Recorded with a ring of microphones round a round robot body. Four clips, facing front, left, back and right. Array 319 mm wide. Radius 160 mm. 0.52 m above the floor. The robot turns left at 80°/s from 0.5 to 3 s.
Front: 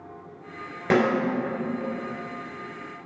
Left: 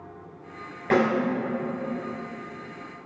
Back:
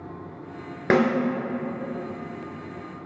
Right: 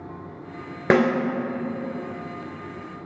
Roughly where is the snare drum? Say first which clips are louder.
Right 3 dB, back 1 dB; right.